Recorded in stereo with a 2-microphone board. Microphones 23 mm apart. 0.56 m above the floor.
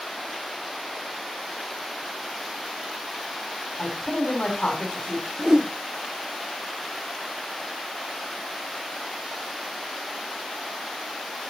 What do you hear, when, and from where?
3.8 s a man speaking: 65° left (ahead or behind), 3 m
5.4 s a whoosh: 35° right (ahead or behind), 0.7 m